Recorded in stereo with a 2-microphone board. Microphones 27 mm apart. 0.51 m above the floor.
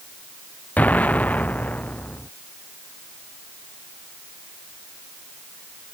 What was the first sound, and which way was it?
An explosion, 70° left (ahead or behind).